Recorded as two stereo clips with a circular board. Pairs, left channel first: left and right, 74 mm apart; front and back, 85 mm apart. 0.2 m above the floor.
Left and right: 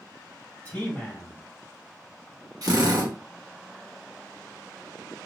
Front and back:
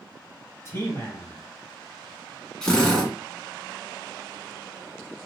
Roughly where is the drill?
Right.